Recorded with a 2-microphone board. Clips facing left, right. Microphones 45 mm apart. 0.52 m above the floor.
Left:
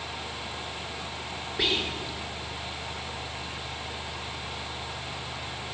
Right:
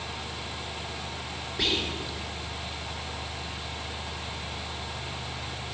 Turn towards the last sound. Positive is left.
turn(degrees=5)  # may be behind; listen again after turning